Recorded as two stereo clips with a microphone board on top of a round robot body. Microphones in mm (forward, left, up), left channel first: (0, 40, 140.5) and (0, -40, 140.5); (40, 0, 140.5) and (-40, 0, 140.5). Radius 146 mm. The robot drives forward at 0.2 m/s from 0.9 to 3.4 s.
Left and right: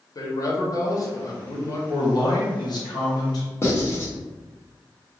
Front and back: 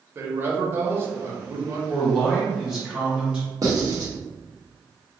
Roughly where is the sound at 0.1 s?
Behind left.